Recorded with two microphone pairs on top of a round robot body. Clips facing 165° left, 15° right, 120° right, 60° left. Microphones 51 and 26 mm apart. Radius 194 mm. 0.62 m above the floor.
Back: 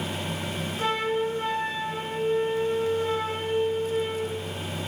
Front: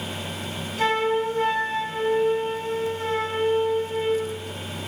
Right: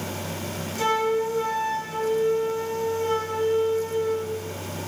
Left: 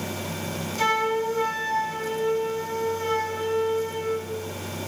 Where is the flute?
15° right, 4 m.